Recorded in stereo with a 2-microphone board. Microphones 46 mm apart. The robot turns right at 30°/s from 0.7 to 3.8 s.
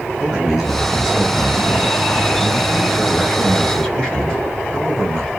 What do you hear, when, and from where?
0.2 s a man speaking: 10° right (ahead or behind), 1.2 m; by 5.3 s 15° left (ahead or behind), 1.2 m